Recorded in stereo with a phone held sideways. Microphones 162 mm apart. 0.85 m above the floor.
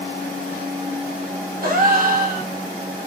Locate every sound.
1.6 s a gasp: 65° right (ahead or behind), 1.2 m